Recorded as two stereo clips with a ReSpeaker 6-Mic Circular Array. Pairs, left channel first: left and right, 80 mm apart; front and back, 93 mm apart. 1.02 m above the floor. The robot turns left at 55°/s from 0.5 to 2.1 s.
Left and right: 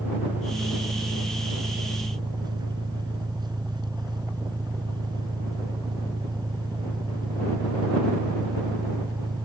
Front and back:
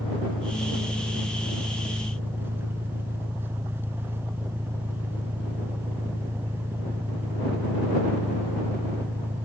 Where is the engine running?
25° right; by 9.5 s 115° right.